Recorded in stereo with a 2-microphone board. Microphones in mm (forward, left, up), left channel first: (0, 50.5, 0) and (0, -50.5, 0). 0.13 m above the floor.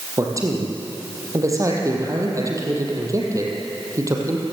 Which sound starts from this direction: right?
A man speaking, at 0.2 s.